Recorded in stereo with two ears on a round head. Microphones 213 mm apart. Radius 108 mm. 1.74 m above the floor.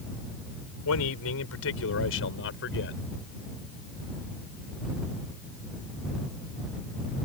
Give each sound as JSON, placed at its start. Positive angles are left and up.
{"t": 0.8, "sound": "a man speaking", "side_deg": 75}